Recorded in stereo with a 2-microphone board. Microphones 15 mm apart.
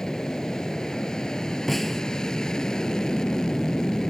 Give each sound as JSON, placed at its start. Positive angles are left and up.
{"t": 0.0, "sound": "an aircraft", "side_deg": 45}
{"t": 1.7, "sound": "a snare drum", "side_deg": 15}